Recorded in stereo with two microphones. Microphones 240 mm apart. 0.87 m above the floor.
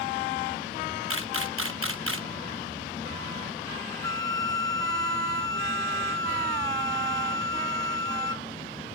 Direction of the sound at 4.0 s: 60° right (ahead or behind).